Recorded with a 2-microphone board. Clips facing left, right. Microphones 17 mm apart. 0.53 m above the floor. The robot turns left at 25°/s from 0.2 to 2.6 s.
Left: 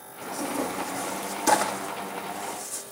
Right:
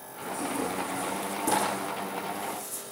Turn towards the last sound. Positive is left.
turn(degrees=25)  # may be behind; listen again after turning